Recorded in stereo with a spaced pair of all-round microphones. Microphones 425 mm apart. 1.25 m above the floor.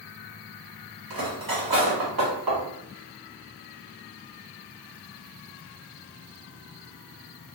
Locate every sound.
1.1 s cutlery clinking: 55° right (ahead or behind), 0.8 m